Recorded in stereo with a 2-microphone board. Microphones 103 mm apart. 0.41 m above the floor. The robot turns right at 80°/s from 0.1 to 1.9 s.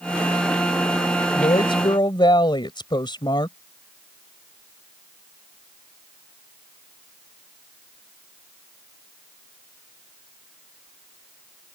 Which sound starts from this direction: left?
A woman speaking, at 1.3 s.